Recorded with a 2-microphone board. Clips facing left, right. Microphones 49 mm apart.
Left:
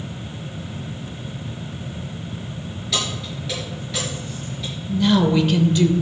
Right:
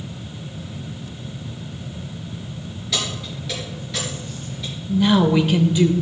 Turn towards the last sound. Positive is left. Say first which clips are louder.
# right 1 dB
turn(degrees=-15)  # may be behind; listen again after turning